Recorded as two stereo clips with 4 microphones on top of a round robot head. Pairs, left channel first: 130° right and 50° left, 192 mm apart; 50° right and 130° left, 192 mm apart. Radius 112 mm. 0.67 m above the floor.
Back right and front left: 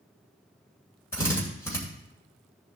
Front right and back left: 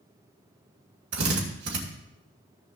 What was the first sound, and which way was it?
A drill, 155° left.